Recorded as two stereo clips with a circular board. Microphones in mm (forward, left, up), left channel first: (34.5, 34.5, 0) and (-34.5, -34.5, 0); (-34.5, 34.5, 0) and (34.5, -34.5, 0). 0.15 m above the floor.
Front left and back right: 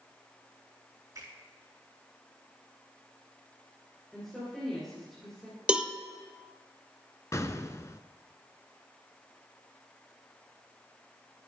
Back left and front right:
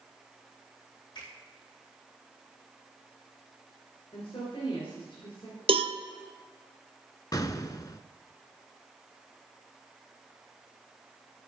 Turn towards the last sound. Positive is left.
turn(degrees=95)